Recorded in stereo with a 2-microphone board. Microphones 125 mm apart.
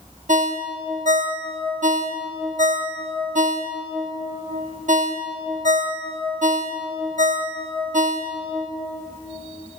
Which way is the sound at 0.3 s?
85° right.